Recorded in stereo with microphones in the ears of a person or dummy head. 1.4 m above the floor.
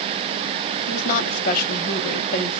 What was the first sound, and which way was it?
A woman speaking, 45° left (ahead or behind).